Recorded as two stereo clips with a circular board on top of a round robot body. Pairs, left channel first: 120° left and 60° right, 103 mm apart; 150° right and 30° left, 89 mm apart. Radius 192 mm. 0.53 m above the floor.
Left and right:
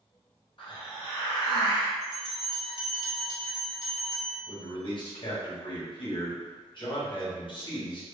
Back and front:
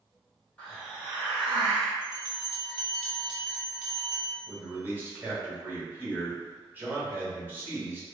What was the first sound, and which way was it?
A hiss, 140° left.